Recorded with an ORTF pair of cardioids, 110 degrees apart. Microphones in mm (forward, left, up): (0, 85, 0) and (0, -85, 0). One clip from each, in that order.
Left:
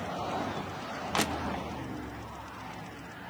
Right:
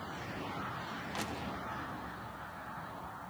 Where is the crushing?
55° left, 1.2 m.